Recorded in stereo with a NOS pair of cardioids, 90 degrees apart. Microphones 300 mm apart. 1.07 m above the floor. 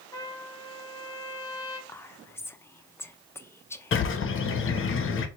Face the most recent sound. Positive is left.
turn(degrees=45)